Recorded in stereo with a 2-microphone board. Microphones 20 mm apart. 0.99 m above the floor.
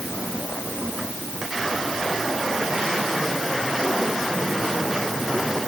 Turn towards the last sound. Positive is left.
No sound to turn to.